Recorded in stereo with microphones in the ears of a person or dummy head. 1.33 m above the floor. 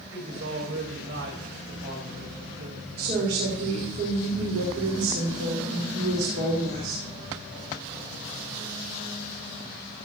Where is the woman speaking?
70° right (ahead or behind), 4 m.